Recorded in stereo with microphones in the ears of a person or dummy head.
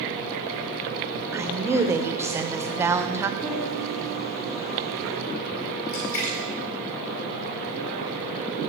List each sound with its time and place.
1.3 s a woman speaking: 10° right (ahead or behind), 0.7 m
3.4 s a piano: 10° right (ahead or behind), 4.5 m
5.9 s a splash: 50° left (ahead or behind), 2.5 m